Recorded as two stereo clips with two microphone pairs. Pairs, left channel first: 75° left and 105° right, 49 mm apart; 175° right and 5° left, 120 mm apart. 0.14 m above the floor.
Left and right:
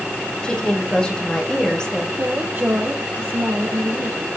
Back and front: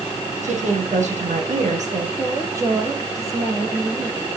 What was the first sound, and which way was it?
A woman speaking, straight ahead.